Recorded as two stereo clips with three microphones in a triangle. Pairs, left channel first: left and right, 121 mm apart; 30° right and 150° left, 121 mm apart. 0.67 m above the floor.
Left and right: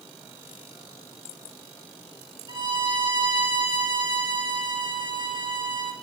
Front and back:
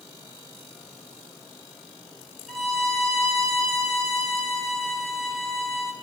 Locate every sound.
2.5 s a violin: 115° right, 1.3 m